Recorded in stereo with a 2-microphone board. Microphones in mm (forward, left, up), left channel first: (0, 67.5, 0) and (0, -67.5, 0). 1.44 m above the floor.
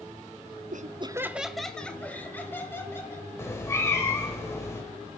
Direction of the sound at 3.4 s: 20° left (ahead or behind).